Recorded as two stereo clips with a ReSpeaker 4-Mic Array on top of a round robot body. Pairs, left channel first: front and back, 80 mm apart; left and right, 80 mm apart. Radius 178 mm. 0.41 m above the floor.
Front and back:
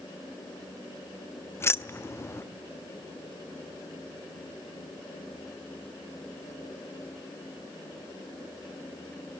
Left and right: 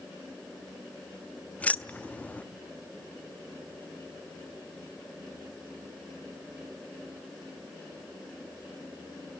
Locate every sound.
1.6 s keys jangling: 30° left, 0.8 m